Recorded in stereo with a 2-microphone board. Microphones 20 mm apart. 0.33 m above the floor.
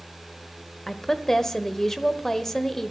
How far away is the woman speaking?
About 1.0 m.